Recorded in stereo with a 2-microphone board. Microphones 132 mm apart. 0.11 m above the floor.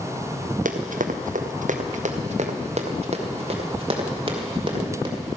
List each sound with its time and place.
0.7 s running footsteps: 85° right, 1.6 m; by 5.2 s 40° right (ahead or behind), 4 m